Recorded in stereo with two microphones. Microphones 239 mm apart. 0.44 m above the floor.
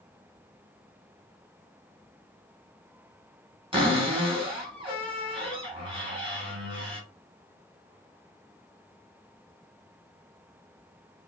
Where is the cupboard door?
20° right (ahead or behind), 1.4 m.